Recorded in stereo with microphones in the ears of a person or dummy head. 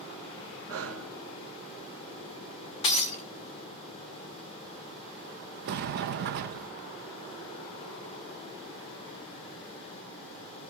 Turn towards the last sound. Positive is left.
turn(degrees=-40)  # may be behind; listen again after turning